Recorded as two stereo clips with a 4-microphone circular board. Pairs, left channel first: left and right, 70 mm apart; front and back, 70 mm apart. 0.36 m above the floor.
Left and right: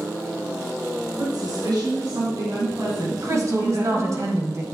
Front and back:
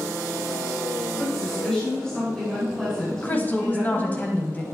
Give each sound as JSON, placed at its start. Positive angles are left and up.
{"t": 1.2, "sound": "a woman speaking", "azimuth_deg": -80, "distance_m": 5.0}
{"t": 3.2, "sound": "a woman speaking", "azimuth_deg": -60, "distance_m": 1.8}